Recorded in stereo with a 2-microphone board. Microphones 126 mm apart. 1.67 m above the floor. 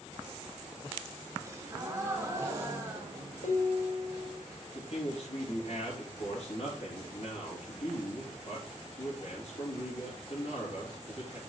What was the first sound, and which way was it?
A gasp, 20° right (ahead or behind).